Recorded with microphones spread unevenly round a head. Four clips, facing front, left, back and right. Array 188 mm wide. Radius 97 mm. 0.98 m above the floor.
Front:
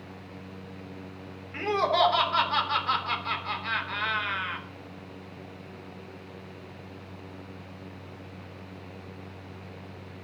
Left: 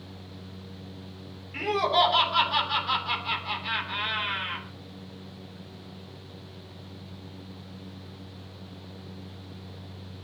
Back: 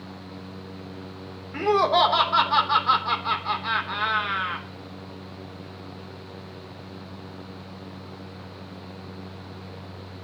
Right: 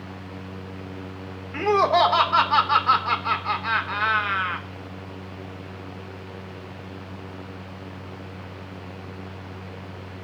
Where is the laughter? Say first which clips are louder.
Right 6 dB, back 5 dB; 135° right, 3.5 m.